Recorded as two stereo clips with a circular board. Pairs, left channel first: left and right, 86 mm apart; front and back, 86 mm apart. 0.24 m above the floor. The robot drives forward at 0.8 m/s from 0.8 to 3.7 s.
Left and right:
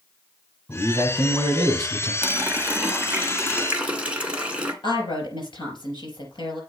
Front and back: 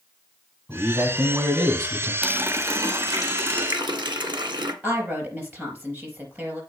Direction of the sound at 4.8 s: 110° left.